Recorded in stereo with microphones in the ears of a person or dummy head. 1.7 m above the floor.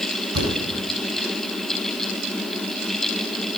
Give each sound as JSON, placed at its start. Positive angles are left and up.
{"t": 0.3, "sound": "a thud", "side_deg": -65, "distance_m": 4.5}